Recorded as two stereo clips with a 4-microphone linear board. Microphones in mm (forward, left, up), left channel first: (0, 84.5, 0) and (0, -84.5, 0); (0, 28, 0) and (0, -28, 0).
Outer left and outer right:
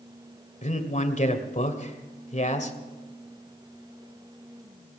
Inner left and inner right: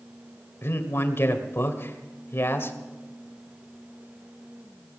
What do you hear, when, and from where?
0.6 s a man speaking: 45° left (ahead or behind), 2 m